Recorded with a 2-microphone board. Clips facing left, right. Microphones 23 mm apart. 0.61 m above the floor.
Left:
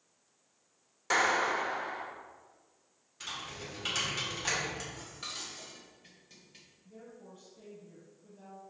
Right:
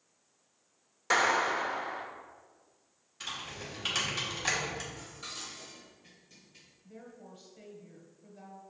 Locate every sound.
1.1 s a clap: 10° right (ahead or behind), 1.2 m
3.2 s typing on a keyboard: 10° right (ahead or behind), 2 m
4.9 s dishes clattering: 25° left (ahead or behind), 1.6 m
6.8 s a woman speaking: 45° right (ahead or behind), 3 m